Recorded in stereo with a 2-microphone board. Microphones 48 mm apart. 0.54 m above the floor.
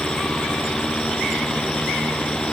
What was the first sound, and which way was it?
Only background noise.